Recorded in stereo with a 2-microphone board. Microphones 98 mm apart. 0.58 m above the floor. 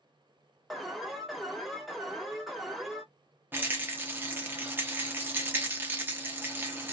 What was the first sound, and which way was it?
An alarm, centre (ahead or behind).